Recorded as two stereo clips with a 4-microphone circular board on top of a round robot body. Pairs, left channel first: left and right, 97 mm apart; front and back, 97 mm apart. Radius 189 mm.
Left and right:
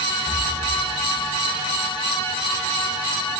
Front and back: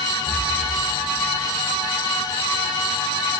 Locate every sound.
0.2 s breathing: 120° left, 6.5 m